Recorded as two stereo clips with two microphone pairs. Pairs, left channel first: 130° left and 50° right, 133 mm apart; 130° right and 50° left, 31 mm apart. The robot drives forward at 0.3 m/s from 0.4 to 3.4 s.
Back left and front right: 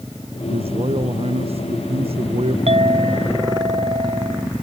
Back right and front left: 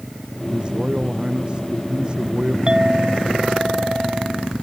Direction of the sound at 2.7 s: 10° right.